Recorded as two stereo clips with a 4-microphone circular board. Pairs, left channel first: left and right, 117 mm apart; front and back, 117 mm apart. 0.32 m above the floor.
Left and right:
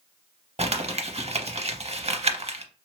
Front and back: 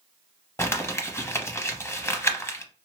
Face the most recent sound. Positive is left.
turn(degrees=-65)